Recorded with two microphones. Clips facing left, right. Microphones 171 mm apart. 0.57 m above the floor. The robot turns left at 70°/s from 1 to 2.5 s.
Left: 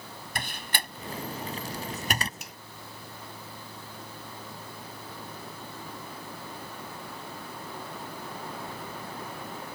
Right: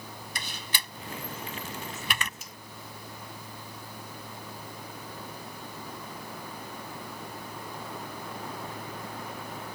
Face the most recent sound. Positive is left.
turn(degrees=75)  # may be behind; listen again after turning